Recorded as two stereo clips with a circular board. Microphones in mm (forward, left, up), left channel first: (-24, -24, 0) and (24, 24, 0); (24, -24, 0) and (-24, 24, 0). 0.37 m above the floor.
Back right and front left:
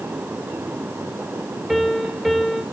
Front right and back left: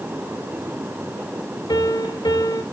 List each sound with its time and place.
1.7 s a piano: 45° right, 2 m